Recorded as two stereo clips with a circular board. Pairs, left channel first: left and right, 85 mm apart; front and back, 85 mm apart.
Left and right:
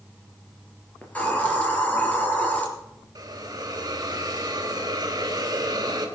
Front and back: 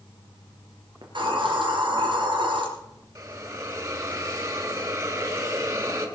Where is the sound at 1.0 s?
160° left, 4.5 m.